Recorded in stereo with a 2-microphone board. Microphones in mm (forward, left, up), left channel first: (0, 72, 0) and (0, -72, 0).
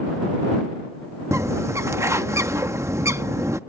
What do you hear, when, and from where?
1.3 s a bird: 20° right (ahead or behind)